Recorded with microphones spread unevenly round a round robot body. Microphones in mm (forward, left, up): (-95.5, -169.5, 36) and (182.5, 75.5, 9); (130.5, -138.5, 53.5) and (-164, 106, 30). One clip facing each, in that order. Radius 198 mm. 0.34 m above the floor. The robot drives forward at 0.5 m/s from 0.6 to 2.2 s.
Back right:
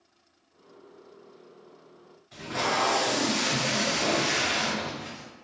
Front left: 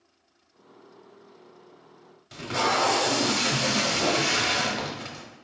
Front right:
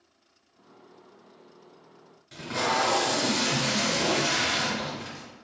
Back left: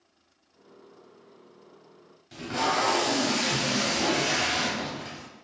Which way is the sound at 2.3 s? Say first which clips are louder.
Front left 3 dB, even; 55° left.